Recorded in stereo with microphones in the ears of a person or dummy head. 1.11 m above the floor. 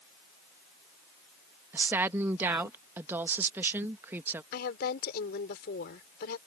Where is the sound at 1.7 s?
15° right (ahead or behind).